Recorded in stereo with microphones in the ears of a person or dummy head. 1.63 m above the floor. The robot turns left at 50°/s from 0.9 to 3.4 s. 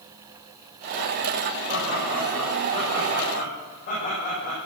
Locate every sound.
1.7 s laughter: 140° right, 9.5 m; by 4.6 s 135° left, 9.5 m